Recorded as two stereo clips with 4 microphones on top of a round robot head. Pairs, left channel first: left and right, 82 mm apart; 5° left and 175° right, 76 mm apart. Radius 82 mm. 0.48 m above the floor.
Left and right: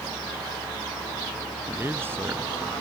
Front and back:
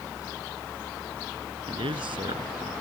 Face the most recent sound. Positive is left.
turn(degrees=-155)